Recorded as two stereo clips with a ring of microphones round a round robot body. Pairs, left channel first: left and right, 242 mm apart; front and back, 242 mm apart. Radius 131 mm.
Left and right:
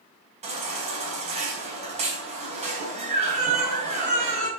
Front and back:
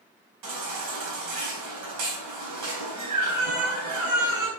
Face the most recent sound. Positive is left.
turn(degrees=-155)